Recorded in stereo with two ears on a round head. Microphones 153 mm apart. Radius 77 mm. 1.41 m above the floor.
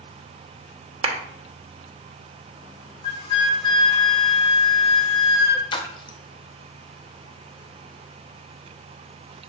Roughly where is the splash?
Left.